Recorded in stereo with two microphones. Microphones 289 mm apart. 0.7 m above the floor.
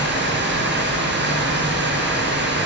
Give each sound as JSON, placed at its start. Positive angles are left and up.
{"t": 0.0, "sound": "running water", "side_deg": -35, "distance_m": 7.0}